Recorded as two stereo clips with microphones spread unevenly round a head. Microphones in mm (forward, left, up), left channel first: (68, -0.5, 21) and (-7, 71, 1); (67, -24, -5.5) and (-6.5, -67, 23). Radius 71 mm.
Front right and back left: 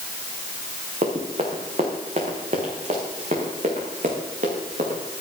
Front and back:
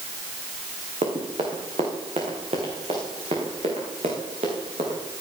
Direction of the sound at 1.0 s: 170° right.